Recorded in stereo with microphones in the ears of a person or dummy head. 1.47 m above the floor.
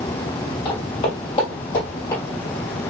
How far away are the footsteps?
About 1.5 m.